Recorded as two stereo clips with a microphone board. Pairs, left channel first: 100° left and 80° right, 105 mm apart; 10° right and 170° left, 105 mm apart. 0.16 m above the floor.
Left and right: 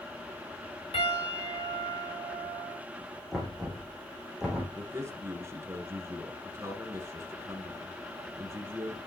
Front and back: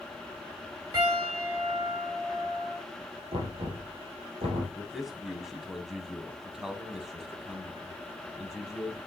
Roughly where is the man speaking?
Right.